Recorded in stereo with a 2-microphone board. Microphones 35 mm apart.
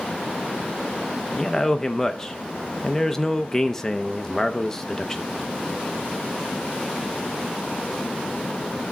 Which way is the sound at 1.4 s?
10° left (ahead or behind).